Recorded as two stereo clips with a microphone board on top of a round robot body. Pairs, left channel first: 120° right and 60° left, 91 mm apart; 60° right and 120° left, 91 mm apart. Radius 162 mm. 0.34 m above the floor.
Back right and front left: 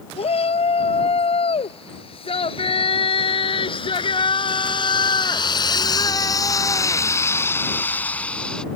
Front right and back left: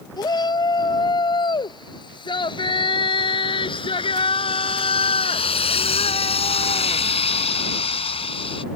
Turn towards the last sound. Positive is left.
turn(degrees=-35)